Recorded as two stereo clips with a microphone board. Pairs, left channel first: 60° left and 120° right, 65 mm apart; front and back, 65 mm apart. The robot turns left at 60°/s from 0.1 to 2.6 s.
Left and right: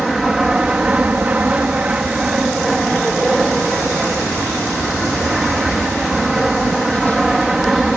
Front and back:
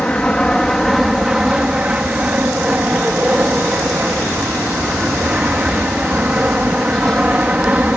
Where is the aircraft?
40° right; by 8.0 s 170° left.